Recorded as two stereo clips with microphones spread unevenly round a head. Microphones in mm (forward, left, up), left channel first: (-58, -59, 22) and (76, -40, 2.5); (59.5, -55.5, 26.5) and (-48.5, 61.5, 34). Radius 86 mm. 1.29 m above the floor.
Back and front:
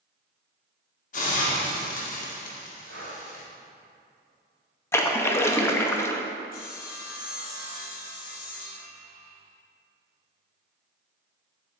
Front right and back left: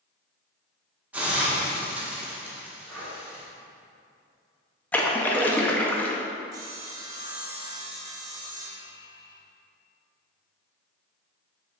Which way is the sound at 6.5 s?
160° right.